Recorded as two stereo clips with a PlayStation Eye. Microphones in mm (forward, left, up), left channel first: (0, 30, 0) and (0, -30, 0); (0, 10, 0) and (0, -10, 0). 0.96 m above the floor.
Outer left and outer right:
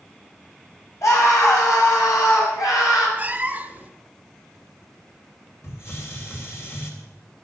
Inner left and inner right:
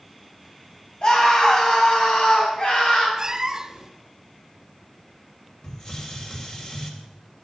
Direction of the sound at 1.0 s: 55° left (ahead or behind).